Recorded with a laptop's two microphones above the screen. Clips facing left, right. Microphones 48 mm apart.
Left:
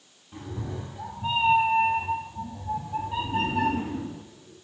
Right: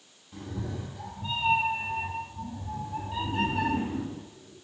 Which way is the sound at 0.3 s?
30° left (ahead or behind).